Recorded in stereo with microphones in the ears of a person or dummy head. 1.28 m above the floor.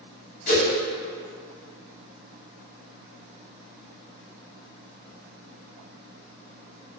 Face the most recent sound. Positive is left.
turn(degrees=40)  # may be behind; listen again after turning